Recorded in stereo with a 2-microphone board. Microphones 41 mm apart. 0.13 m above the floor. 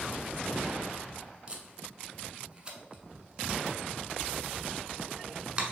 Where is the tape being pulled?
25° right (ahead or behind), 0.8 m.